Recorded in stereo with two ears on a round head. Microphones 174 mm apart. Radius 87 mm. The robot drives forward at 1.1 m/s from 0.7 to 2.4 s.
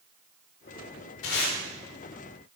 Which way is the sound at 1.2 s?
80° left.